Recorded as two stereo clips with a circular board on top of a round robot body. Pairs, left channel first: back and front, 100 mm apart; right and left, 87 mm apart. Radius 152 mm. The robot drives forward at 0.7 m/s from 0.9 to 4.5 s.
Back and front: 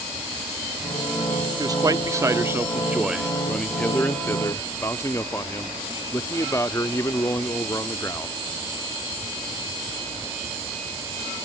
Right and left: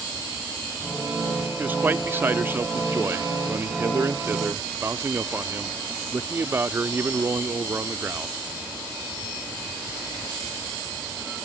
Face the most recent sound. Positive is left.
turn(degrees=140)